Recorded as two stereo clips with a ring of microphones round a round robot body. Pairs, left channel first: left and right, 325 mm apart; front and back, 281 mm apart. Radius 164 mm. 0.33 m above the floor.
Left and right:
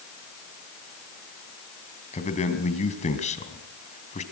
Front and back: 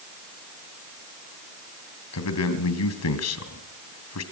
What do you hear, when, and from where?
2.1 s a man speaking: 20° left, 3 m